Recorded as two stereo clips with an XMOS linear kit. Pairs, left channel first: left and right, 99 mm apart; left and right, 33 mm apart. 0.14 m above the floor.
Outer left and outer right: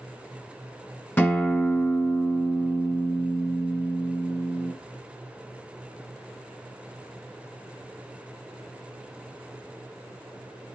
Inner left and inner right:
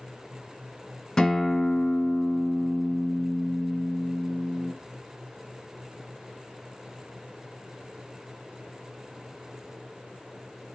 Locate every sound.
1.2 s a guitar: 15° left (ahead or behind), 1.6 m